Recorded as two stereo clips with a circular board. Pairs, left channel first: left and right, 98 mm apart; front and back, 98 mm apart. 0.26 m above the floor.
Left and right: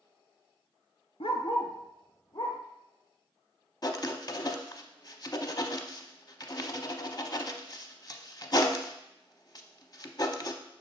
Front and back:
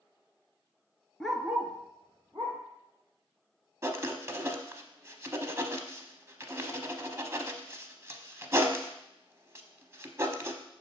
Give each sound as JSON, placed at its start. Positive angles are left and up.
{"t": 1.2, "sound": "a dog barking", "azimuth_deg": 85, "distance_m": 0.7}
{"t": 3.8, "sound": "writing", "azimuth_deg": 125, "distance_m": 0.7}